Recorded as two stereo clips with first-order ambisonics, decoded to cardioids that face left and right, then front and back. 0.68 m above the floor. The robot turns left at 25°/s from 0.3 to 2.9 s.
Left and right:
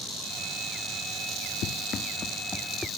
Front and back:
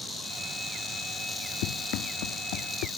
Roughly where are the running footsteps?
Ahead left.